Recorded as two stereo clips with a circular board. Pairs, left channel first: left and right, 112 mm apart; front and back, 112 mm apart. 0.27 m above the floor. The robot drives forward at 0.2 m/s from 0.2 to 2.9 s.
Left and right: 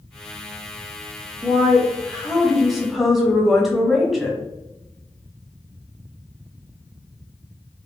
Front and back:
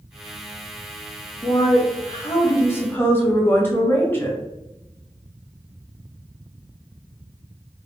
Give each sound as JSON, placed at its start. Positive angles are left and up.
{"t": 1.4, "sound": "a woman speaking", "azimuth_deg": 0, "distance_m": 1.1}